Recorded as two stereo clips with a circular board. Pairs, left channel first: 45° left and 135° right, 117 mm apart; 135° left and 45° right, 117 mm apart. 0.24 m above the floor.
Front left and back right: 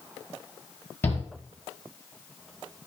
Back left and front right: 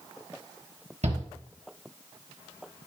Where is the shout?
25° right, 5 m.